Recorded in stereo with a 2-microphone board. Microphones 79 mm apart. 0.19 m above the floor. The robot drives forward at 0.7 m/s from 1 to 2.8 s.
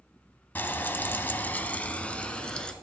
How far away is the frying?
About 0.6 m.